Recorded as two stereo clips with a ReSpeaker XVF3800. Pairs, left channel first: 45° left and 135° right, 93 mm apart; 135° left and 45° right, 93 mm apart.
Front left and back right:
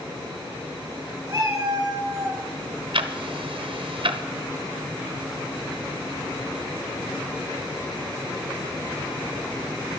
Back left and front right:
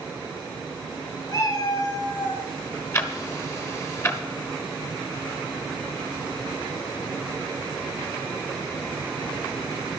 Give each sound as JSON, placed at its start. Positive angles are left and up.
{"t": 1.3, "sound": "a cat meowing", "azimuth_deg": 170, "distance_m": 3.0}
{"t": 2.9, "sound": "ticking", "azimuth_deg": -165, "distance_m": 0.9}